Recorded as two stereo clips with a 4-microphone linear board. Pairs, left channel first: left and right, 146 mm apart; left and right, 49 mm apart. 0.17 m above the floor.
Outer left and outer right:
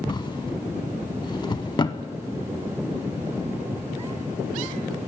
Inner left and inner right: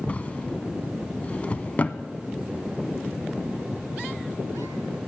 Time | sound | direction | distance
0.1 | a drawer | 30° left (ahead or behind) | 0.5 m